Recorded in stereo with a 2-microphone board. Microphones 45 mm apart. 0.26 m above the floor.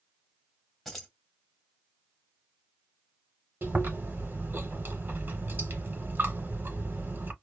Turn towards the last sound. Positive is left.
turn(degrees=-50)  # may be behind; listen again after turning